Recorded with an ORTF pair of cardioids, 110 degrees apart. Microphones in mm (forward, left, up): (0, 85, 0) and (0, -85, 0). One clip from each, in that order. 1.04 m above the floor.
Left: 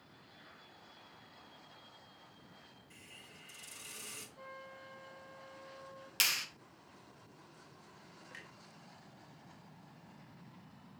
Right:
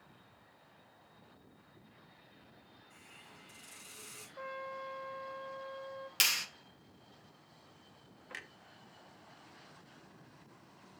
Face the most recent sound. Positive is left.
turn(degrees=-40)